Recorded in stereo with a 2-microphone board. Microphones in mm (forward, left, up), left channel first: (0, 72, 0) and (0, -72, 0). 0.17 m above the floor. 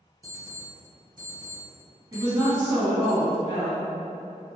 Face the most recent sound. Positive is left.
turn(degrees=-25)  # may be behind; listen again after turning